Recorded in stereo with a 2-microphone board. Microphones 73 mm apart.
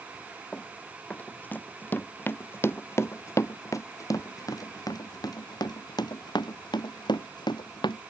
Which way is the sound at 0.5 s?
15° left (ahead or behind).